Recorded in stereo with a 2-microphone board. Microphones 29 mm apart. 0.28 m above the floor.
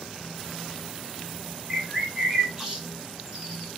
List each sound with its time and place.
1.7 s a bird: 20° right (ahead or behind), 1.3 m